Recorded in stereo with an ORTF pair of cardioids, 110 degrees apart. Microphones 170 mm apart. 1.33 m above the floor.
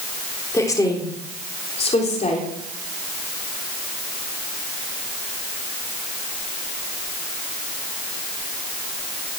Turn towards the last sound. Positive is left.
turn(degrees=45)